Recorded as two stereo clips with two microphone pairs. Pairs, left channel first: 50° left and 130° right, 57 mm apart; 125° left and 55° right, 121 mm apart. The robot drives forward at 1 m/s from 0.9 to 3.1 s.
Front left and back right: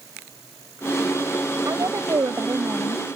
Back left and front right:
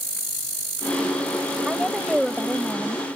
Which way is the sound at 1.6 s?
140° right.